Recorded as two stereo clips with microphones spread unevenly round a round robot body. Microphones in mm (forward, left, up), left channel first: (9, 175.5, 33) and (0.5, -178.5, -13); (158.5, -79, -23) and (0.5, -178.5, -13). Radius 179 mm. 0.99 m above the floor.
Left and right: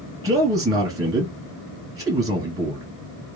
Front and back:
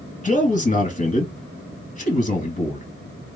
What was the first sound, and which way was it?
A man speaking, 15° right.